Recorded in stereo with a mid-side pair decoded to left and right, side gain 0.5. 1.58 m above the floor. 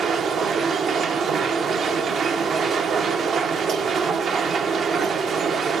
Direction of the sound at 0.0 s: 50° right.